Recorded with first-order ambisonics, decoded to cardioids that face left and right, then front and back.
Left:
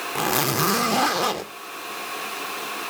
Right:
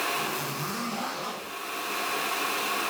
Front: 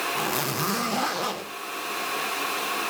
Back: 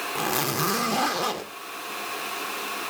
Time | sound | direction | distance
0.1 | a zipper | 100° left | 0.5 m